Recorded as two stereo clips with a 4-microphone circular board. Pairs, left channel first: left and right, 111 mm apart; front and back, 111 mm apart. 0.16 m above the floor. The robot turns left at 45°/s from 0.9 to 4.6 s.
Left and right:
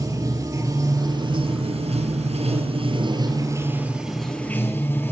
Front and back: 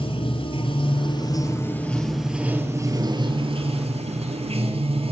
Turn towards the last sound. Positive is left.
turn(degrees=160)